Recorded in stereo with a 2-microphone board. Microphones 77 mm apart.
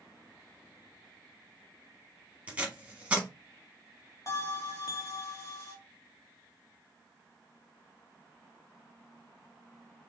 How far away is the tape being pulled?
About 0.9 m.